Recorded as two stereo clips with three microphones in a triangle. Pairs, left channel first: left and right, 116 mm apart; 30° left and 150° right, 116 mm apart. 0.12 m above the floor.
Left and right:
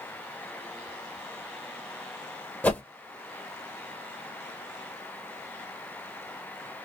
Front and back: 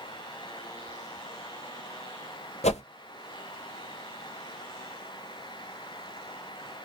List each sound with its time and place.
2.6 s a whoosh: 15° left, 0.5 m